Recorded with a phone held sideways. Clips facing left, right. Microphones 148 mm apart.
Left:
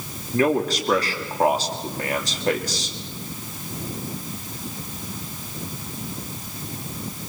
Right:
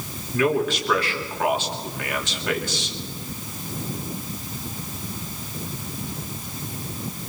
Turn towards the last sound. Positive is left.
turn(degrees=40)  # may be behind; listen again after turning